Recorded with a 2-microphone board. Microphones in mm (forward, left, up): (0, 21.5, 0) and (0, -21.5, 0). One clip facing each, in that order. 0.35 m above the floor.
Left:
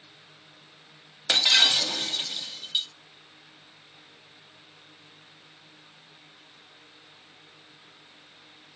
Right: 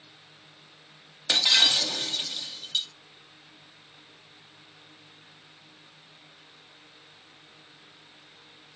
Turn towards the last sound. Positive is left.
turn(degrees=15)  # may be behind; listen again after turning